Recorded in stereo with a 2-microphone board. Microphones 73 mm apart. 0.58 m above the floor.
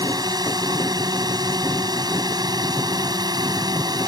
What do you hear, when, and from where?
0.0 s a drone: 70° right (ahead or behind)